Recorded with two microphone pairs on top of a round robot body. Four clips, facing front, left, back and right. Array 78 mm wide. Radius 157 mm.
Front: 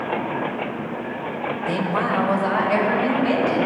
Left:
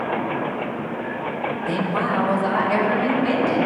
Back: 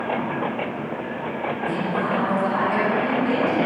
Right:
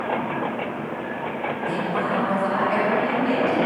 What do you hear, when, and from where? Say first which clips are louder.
1.6 s a woman speaking: left 2 dB, front 3 dB; 10° left, 2 m; by 3.6 s 15° left, 4.5 m